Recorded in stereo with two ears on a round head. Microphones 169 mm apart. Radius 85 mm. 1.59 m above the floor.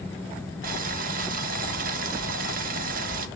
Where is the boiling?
45° right (ahead or behind), 1.2 m.